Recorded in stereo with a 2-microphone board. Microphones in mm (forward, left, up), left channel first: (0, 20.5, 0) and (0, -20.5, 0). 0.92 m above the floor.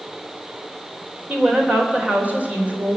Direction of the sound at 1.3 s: 40° right (ahead or behind).